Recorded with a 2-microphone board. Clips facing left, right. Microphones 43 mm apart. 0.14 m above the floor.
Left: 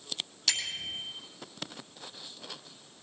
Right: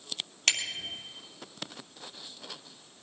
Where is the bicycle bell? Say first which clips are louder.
Right 3 dB; 65° right (ahead or behind), 3 m.